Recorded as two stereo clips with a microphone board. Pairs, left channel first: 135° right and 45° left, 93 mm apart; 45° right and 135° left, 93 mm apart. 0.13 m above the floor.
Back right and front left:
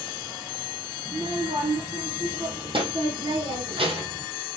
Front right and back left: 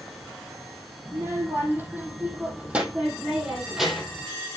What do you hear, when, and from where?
1.1 s a child speaking: 75° left, 3.5 m; by 4.3 s 45° left, 3 m